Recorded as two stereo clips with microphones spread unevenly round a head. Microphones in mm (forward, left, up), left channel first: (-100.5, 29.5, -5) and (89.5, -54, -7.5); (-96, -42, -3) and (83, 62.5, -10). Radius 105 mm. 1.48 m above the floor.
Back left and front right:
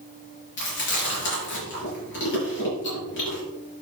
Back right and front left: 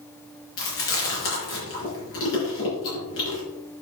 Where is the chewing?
170° right, 5.5 m.